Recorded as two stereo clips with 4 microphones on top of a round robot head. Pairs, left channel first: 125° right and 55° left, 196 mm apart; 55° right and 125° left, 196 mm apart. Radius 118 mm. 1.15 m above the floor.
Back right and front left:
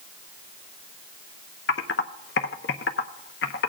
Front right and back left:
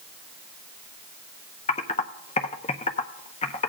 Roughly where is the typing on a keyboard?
Right.